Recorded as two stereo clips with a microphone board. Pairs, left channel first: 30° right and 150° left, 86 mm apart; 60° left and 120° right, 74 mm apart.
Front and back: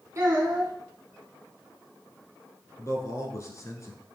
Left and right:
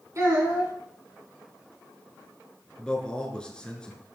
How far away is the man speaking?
About 1.4 m.